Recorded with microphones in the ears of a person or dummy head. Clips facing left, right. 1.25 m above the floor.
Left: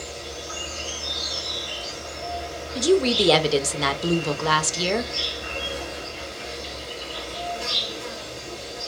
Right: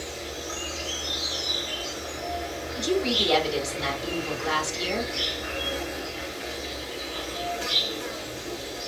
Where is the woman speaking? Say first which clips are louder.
Left 7 dB; 70° left (ahead or behind), 0.6 m.